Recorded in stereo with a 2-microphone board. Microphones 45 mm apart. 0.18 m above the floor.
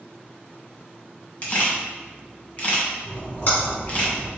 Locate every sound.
1.4 s a camera shutter: 35° left (ahead or behind), 1.4 m
3.0 s a splash: 45° left (ahead or behind), 1.9 m